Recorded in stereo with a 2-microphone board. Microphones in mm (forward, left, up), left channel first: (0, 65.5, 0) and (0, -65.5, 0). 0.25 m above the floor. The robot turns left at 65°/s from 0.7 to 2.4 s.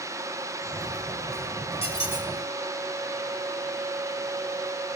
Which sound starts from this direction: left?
A squeak, at 1.8 s.